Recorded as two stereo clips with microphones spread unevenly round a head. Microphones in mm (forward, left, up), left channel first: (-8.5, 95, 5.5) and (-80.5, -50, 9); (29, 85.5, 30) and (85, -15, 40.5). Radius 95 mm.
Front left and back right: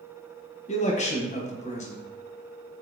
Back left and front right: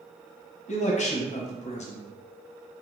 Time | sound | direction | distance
0.7 | a man speaking | 110° left | 0.8 m